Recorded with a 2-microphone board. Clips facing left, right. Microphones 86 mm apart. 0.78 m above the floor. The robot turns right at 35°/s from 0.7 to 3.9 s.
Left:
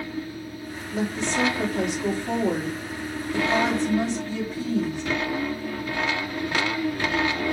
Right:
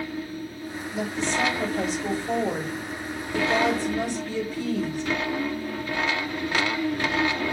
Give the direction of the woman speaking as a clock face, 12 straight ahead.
10 o'clock.